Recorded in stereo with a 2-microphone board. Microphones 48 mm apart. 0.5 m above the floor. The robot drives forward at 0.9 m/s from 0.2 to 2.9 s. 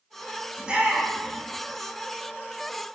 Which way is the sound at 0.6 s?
20° right (ahead or behind).